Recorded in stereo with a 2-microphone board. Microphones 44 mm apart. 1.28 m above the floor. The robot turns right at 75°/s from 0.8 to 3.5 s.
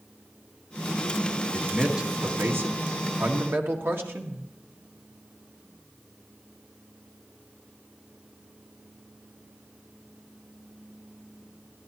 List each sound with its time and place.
1.5 s a man speaking: 160° left, 1.7 m; by 4.5 s 55° right, 1.7 m